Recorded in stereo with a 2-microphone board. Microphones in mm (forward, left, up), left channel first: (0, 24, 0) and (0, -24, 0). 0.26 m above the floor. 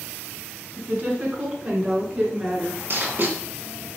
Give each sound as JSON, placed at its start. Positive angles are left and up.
{"t": 0.8, "sound": "a woman speaking", "side_deg": -40, "distance_m": 2.0}
{"t": 2.9, "sound": "writing", "side_deg": -45, "distance_m": 1.8}